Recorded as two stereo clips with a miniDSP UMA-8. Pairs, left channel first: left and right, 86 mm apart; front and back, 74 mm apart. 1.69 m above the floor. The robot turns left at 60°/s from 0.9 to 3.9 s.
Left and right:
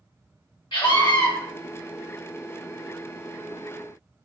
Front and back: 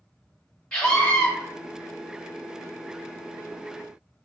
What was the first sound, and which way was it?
A scream, 75° left.